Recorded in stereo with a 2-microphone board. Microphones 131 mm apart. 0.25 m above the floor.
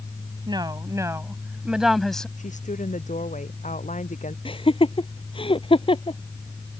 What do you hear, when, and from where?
0.5 s a woman speaking: 35° right (ahead or behind); by 2.3 s 5° left (ahead or behind)
2.4 s a woman speaking: 65° left (ahead or behind)
4.5 s laughter: 40° left (ahead or behind)